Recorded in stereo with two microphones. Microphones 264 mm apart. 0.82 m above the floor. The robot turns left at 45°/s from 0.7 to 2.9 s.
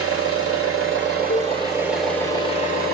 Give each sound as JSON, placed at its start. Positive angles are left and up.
{"t": 0.0, "sound": "an engine running", "azimuth_deg": -120, "distance_m": 2.5}
{"t": 1.3, "sound": "a cowbell", "side_deg": 45, "distance_m": 0.6}